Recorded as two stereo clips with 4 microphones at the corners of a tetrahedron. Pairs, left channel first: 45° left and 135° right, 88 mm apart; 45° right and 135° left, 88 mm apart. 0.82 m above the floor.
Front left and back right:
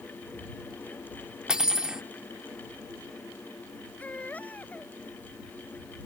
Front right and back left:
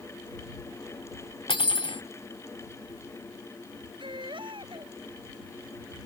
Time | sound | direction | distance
1.5 | cutlery clinking | 55° right | ?
4.0 | a baby crying | 115° left | ?